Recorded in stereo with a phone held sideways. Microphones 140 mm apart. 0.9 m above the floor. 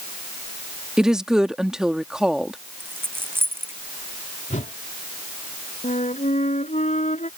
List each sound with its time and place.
1.0 s a woman speaking: 5° right (ahead or behind)
2.8 s a dropped coin: 15° right (ahead or behind)
4.5 s a whoosh: 60° left (ahead or behind)
5.8 s a flute: 60° left (ahead or behind)